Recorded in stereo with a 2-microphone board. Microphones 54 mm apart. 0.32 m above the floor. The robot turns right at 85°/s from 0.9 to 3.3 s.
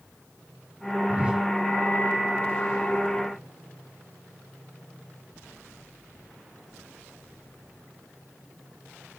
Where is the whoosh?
35° right, 1.0 m; by 1.5 s straight ahead, 1.0 m.